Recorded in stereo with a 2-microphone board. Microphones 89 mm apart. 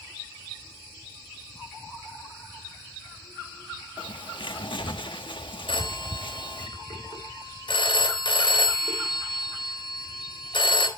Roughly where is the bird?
Left.